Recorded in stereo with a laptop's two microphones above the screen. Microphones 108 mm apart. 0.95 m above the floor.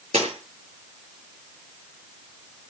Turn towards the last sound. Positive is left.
turn(degrees=-75)  # may be behind; listen again after turning